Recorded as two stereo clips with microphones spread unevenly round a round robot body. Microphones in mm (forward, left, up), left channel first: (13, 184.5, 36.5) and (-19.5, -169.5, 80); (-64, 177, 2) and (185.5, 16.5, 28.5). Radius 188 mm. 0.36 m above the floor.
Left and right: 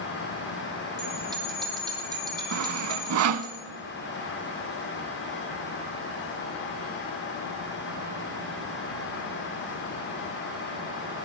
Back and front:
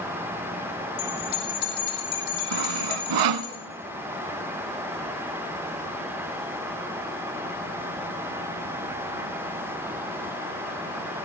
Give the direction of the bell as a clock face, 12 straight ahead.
6 o'clock.